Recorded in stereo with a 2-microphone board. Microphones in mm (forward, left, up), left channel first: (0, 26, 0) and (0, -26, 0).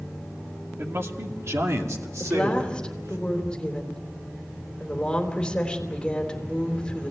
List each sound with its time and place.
0.8 s a man speaking: 50° right (ahead or behind), 2 m; by 3.2 s 80° right, 3 m
2.2 s a woman speaking: 15° left (ahead or behind), 3.5 m